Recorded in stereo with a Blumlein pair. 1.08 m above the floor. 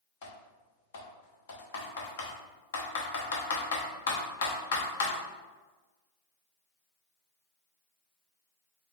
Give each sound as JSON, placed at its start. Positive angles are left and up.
{"t": 0.2, "sound": "typing on a keyboard", "azimuth_deg": 60, "distance_m": 1.0}